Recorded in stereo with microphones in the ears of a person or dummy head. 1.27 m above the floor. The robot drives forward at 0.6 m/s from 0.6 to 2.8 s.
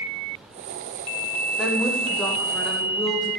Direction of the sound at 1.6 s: 5° right (ahead or behind).